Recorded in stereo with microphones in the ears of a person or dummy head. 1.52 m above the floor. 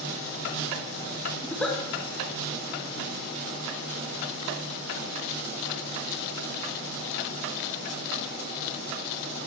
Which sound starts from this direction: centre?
A giggle, at 1.4 s.